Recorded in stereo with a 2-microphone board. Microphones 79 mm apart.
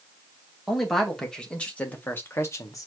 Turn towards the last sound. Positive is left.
turn(degrees=45)  # may be behind; listen again after turning